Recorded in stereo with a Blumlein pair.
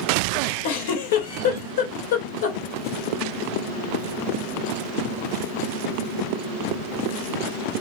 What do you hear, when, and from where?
0.6 s a giggle: 55° left, 3.5 m